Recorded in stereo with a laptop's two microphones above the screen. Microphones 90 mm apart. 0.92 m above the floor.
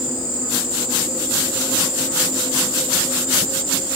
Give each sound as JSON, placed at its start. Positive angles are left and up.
{"t": 0.0, "sound": "an insect", "side_deg": -15, "distance_m": 1.0}